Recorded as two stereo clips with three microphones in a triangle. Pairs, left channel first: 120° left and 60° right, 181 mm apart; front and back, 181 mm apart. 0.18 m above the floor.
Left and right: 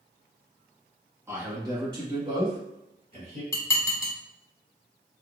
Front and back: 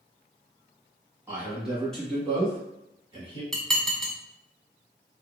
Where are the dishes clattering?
85° left, 0.9 m.